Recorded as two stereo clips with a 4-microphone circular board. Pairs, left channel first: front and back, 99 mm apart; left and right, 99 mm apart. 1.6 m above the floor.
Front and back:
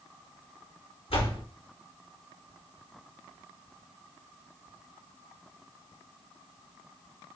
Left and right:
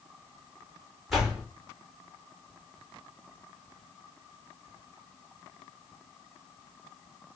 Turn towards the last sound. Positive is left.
turn(degrees=0)